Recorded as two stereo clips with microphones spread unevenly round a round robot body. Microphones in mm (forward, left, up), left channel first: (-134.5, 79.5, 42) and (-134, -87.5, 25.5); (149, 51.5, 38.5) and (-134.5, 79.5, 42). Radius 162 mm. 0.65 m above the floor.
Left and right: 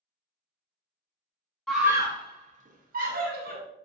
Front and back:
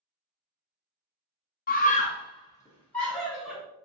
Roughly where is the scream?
Ahead.